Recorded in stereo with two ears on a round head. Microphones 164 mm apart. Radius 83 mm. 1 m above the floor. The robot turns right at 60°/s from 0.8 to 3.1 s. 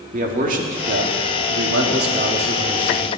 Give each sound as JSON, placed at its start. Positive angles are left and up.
{"t": 0.1, "sound": "a man speaking", "azimuth_deg": -130, "distance_m": 1.8}